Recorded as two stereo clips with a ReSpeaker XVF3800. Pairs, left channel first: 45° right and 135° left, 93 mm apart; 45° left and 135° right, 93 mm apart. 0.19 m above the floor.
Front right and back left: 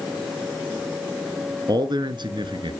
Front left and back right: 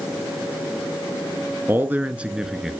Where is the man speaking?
160° left, 2 m; by 2.7 s 140° left, 2.5 m.